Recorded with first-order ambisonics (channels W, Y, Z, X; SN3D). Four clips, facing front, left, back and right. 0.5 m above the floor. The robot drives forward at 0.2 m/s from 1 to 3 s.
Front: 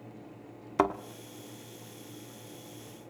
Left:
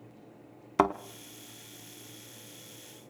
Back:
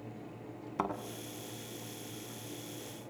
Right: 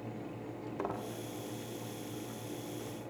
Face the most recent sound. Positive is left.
turn(degrees=95)